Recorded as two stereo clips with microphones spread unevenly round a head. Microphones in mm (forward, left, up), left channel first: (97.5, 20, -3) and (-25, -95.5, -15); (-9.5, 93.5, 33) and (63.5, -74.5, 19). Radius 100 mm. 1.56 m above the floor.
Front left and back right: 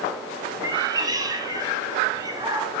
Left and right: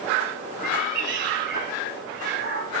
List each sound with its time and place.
0.6 s a cat meowing: 75° right, 2.0 m